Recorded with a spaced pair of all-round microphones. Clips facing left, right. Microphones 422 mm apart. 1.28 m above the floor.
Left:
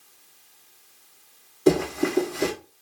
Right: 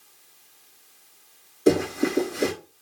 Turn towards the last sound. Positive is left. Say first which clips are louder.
# even
turn(degrees=10)  # may be behind; listen again after turning